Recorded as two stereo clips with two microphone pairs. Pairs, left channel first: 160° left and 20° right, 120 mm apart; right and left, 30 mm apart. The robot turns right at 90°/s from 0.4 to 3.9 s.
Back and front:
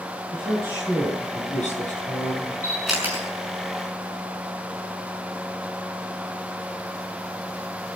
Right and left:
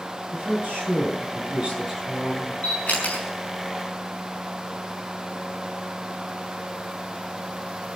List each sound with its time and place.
0.3 s a woman speaking: 30° left, 9.5 m; by 2.5 s 135° right, 9.5 m
2.6 s a camera shutter: 130° right, 6 m; by 3.2 s 75° right, 6 m